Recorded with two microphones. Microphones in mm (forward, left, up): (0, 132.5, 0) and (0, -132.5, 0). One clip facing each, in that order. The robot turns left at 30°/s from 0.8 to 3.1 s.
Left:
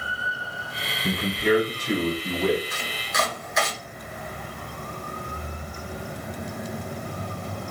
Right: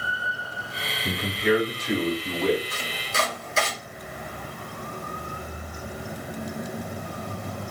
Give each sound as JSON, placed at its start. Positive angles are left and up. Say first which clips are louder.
{"t": 1.0, "sound": "a man speaking", "louder": "left 1 dB", "azimuth_deg": 60, "distance_m": 1.1}
{"t": 2.7, "sound": "chopping", "louder": "even", "side_deg": -40, "distance_m": 0.9}